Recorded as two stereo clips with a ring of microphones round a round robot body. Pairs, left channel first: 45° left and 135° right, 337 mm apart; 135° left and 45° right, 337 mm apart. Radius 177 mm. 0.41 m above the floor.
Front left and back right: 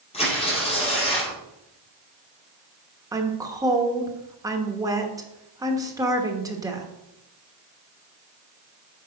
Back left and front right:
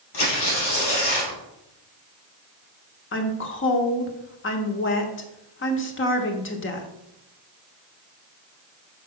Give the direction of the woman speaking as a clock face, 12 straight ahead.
7 o'clock.